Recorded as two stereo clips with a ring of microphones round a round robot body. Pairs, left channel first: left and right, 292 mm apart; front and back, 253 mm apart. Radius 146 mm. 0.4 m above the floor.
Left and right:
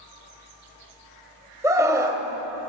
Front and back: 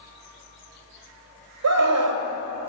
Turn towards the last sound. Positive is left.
turn(degrees=-170)